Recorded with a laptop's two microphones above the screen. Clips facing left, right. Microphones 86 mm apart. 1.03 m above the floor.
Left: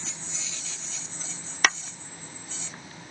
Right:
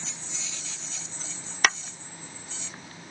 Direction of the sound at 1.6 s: Centre (ahead or behind).